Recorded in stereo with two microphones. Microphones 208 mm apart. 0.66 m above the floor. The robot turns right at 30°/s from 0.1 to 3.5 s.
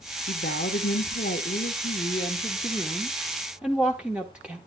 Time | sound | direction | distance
0.3 | a woman speaking | 90° left | 1.3 m